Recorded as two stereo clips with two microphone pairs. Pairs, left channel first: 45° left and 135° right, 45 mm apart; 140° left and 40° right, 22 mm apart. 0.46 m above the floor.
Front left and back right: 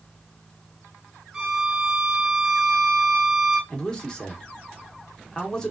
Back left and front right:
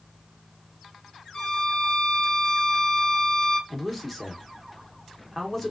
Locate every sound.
1.3 s a violin: 145° left, 1.9 m
3.7 s a man speaking: 75° left, 0.8 m